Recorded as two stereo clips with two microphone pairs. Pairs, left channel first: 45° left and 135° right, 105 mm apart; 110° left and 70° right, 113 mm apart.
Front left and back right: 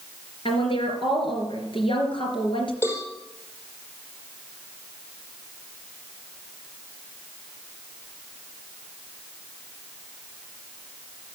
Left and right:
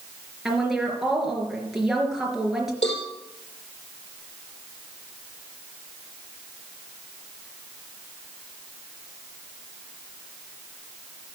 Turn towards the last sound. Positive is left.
turn(degrees=110)